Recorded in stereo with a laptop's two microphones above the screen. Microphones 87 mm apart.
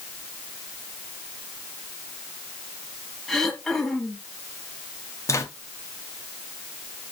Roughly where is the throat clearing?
Centre.